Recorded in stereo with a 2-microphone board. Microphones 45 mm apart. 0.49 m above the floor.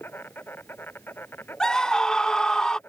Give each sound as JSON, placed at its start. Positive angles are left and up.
{"t": 0.0, "sound": "an insect", "side_deg": 55}
{"t": 1.6, "sound": "a scream", "side_deg": 15}